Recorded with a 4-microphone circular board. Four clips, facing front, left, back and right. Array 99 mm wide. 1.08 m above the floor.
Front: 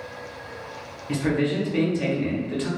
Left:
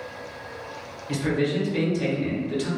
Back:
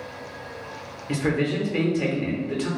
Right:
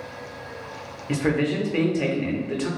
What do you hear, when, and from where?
1.1 s a man speaking: 110° right, 0.7 m